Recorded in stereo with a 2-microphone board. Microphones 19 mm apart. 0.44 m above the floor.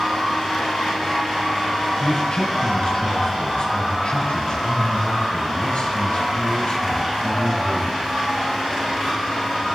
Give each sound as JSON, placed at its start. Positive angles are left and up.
{"t": 2.0, "sound": "a man speaking", "side_deg": 40, "distance_m": 3.0}